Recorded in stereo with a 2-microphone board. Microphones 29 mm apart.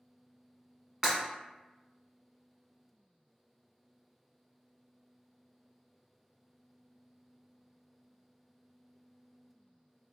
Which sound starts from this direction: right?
Breaking glass, at 1.0 s.